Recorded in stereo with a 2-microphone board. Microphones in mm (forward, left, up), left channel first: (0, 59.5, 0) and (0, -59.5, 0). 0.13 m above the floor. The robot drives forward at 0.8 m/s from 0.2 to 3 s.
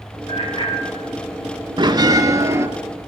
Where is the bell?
40° right (ahead or behind), 0.8 m; by 2.7 s 25° right (ahead or behind), 1.2 m.